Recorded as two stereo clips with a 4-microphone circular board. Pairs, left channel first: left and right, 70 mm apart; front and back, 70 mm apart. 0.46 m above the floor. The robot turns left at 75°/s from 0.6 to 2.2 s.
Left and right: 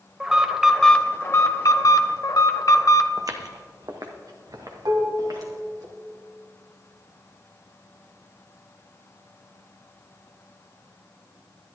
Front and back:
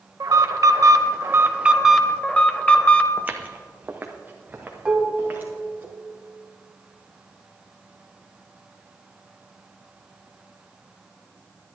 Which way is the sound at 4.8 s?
110° right.